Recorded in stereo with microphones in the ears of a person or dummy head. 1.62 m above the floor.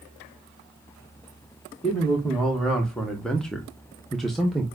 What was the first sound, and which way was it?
A man speaking, 5° left (ahead or behind).